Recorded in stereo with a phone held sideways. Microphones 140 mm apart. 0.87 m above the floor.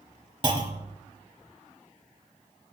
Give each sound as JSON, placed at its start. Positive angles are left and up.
{"t": 0.4, "sound": "a clunk", "side_deg": -35, "distance_m": 0.8}